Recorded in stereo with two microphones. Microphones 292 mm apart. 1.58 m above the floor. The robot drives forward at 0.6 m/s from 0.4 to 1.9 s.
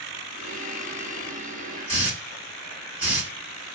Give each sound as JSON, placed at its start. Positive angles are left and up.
{"t": 1.9, "sound": "a hiss", "side_deg": -5, "distance_m": 1.8}